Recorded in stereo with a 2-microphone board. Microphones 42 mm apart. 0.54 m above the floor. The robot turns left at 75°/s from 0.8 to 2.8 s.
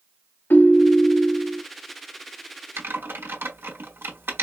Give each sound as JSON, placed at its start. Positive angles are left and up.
{"t": 0.5, "sound": "a ringtone", "azimuth_deg": 70, "distance_m": 1.2}
{"t": 2.8, "sound": "typing on a keyboard", "side_deg": -65, "distance_m": 1.2}